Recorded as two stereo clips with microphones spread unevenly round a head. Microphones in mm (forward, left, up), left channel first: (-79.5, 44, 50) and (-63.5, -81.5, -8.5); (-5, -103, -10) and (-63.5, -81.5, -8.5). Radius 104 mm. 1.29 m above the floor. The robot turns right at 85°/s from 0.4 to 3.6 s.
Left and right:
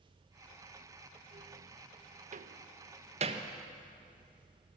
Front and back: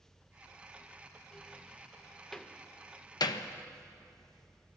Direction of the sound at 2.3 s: 105° right.